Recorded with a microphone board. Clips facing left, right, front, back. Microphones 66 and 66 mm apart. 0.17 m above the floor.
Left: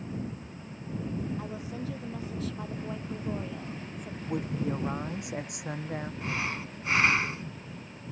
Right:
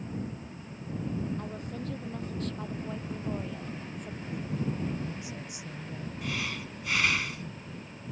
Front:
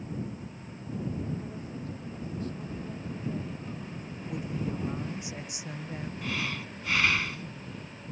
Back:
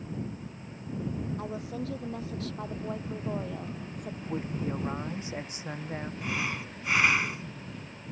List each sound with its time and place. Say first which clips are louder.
1.4 s a woman speaking: left 1 dB, back 4 dB; 175° left; by 4.2 s straight behind
4.2 s a woman speaking: left 3 dB, back 1 dB; 125° left
6.2 s breathing: right 1 dB, even; 125° left